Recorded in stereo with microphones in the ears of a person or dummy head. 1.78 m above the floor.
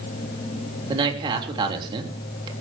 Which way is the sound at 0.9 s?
30° right (ahead or behind).